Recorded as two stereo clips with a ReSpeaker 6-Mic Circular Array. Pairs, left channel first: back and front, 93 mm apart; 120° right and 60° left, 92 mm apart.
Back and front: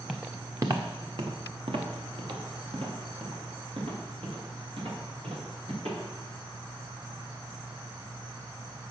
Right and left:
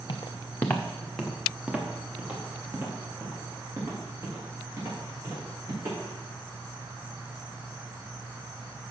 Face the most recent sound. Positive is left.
turn(degrees=0)